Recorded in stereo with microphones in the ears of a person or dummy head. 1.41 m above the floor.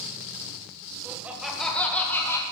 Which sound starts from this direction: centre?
Laughter, at 1.1 s.